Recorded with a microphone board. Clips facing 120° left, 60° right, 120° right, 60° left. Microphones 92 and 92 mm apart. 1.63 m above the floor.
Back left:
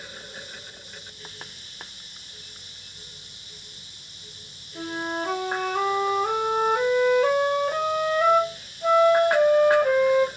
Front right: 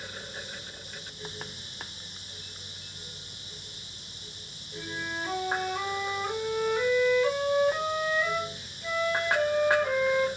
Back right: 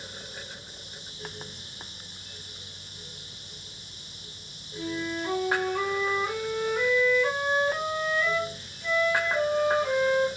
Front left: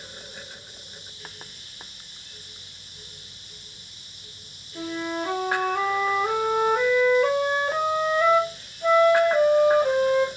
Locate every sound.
4.8 s a flute: 90° left, 0.7 m